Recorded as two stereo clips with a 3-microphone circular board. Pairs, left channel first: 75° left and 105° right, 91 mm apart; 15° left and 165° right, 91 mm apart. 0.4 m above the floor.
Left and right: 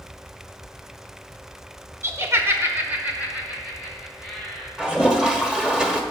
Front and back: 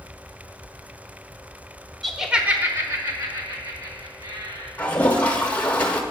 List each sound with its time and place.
2.0 s laughter: 75° right, 1.1 m; by 4.7 s 170° left, 2.5 m
4.8 s a toilet flushing: 35° right, 1.0 m